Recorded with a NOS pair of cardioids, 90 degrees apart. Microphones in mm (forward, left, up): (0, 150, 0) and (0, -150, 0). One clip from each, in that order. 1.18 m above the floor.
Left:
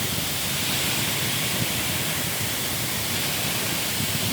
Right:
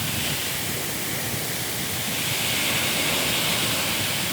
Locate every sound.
Only background noise.